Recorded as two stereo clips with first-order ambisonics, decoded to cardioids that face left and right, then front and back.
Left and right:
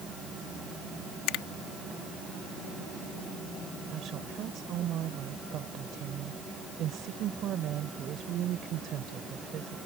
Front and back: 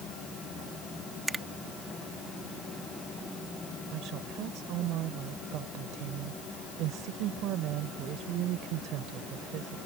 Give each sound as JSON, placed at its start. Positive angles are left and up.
{"t": 1.3, "sound": "a finger snap", "azimuth_deg": 100}
{"t": 3.9, "sound": "a woman speaking", "azimuth_deg": -140}